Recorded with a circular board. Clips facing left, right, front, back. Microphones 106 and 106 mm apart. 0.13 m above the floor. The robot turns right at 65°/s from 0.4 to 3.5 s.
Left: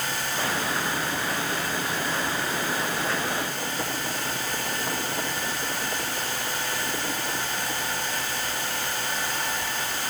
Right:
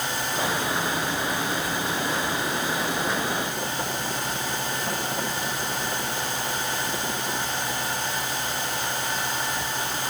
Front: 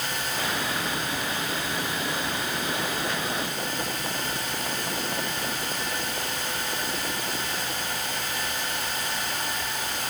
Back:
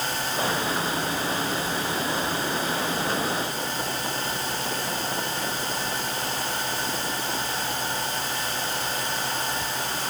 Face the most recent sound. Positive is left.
No sound to turn to.